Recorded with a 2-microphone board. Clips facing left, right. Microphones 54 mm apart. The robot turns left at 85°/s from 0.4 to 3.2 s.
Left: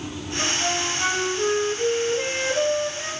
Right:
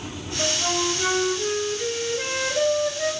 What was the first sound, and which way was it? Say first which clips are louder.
A flute: right 1 dB; straight behind.